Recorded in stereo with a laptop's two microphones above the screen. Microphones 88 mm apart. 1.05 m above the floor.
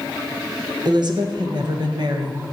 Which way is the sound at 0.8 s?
55° right (ahead or behind).